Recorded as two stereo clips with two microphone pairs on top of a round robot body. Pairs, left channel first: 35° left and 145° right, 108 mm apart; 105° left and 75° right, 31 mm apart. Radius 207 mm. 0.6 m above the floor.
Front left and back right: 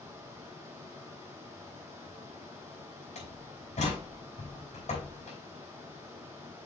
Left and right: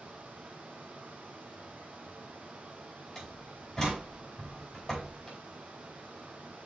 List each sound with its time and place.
0.0 s running water: 75° right, 0.7 m
3.1 s a door slam: 25° left, 4.5 m